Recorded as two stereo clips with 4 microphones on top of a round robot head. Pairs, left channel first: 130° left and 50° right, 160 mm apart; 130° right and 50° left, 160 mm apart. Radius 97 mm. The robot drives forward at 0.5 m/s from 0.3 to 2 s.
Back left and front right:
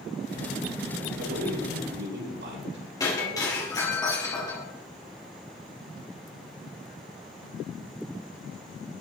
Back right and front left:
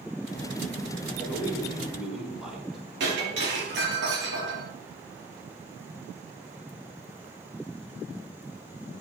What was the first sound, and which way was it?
A man speaking, 35° right.